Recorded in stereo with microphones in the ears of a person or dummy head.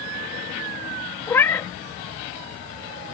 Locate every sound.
1.3 s a cat meowing: 15° left (ahead or behind)